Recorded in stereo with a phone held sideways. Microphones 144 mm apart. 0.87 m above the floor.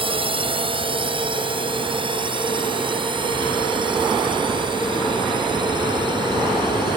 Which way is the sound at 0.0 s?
35° right (ahead or behind).